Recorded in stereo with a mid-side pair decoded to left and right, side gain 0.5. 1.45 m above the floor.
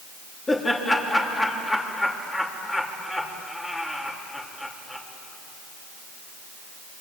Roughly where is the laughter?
Ahead left.